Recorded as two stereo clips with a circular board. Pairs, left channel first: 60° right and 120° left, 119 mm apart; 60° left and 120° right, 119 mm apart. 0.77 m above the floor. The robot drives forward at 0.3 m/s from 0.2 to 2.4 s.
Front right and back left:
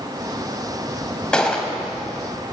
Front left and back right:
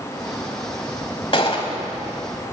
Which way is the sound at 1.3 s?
20° left.